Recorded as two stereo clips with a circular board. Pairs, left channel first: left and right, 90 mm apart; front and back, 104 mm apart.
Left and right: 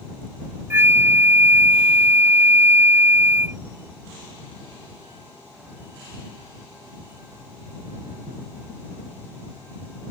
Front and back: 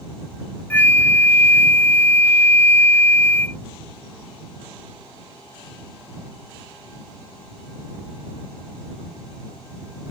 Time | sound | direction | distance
0.7 | a flute | 50° right | ?